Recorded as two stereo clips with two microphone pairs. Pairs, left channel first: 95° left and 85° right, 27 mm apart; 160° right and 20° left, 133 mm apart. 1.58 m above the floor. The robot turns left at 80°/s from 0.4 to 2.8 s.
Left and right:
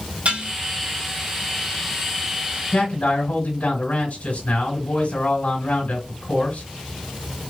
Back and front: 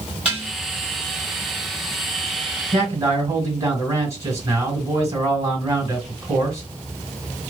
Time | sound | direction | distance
0.2 | dishes clattering | 60° right | 2.5 m
2.7 | a man speaking | 95° left | 3 m